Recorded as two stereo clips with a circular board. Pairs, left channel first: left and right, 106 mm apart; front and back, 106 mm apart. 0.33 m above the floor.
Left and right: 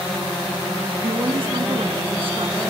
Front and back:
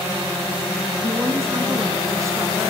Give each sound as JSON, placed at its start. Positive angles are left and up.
{"t": 1.0, "sound": "a woman speaking", "azimuth_deg": -120, "distance_m": 3.0}